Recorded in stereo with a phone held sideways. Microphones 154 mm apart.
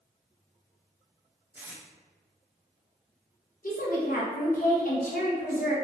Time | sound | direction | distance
1.6 | tape being pulled | 10° right (ahead or behind) | 0.5 m
3.6 | a woman speaking | 65° left (ahead or behind) | 0.9 m